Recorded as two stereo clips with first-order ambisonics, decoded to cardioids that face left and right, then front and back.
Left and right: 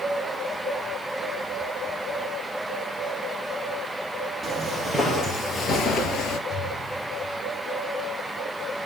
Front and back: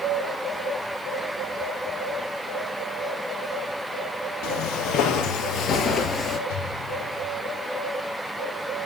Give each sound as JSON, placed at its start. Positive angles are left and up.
{"t": 4.4, "sound": "footsteps", "azimuth_deg": -5, "distance_m": 3.5}
{"t": 6.5, "sound": "an explosion", "azimuth_deg": -15, "distance_m": 2.0}